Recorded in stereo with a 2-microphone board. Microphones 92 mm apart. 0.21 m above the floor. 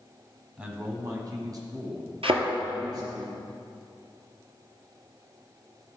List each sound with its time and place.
0.6 s a man speaking: 15° right (ahead or behind), 1.2 m; by 3.2 s 45° right (ahead or behind), 3.5 m
2.2 s a thud: 75° right (ahead or behind), 1.5 m